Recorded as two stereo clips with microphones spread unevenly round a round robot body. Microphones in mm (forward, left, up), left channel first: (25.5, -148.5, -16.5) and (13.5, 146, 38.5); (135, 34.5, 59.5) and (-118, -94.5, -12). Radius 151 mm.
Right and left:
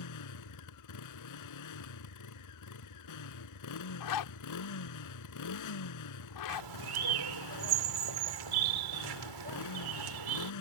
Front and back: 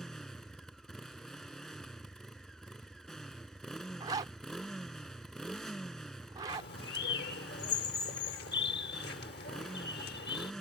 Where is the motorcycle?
60° right.